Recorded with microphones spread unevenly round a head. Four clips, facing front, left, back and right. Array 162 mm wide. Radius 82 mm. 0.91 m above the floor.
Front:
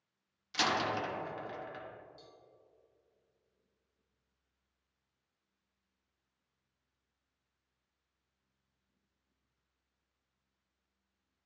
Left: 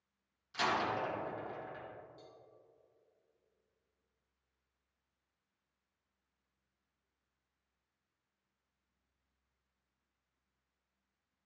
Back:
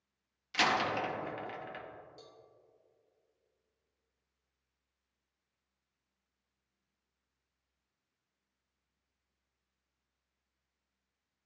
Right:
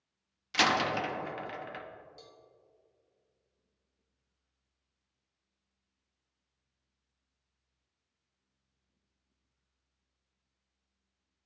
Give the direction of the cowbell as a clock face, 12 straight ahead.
4 o'clock.